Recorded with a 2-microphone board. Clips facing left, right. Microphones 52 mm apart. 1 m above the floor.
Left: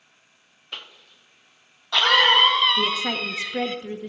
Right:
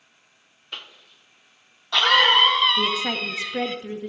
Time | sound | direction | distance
0.7 | a cough | centre (ahead or behind) | 0.8 m
2.8 | a woman speaking | 5° right (ahead or behind) | 0.5 m